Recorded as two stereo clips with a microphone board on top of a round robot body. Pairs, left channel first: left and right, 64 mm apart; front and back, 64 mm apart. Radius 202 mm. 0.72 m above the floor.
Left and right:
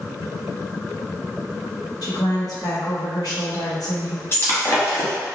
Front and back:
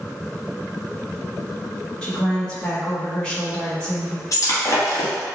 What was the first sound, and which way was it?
A woman speaking, 75° left.